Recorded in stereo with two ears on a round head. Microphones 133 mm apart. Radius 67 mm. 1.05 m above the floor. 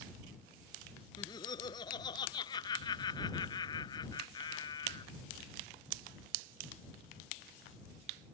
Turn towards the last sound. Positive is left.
turn(degrees=30)  # may be behind; listen again after turning